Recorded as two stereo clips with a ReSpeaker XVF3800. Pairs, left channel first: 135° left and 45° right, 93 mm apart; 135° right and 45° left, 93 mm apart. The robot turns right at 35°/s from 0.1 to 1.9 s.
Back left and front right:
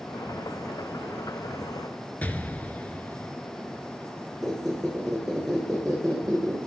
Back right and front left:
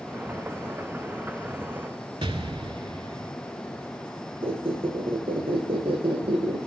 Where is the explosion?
65° left, 0.6 m.